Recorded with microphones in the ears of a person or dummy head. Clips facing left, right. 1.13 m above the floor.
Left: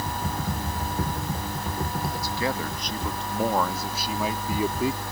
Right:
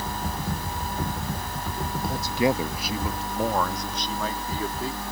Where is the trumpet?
I don't hear a trumpet.